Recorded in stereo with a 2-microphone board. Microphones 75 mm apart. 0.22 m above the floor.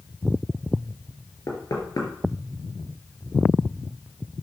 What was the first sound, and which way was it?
Knocking, 50° left (ahead or behind).